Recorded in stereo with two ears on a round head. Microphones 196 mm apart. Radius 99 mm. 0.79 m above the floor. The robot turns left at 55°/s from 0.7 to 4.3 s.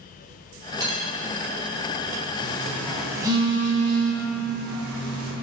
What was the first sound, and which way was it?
Cutlery clinking, 20° right (ahead or behind).